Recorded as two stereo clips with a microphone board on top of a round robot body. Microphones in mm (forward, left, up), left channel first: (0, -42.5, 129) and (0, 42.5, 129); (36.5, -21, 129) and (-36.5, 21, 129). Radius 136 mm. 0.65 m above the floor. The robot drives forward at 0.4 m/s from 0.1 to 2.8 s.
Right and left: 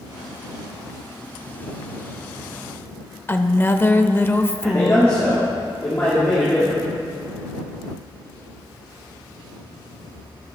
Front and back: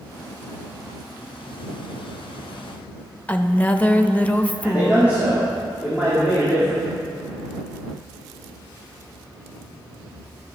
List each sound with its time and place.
3.3 s a woman speaking: 80° right, 0.7 m
4.6 s a man speaking: 145° right, 1.8 m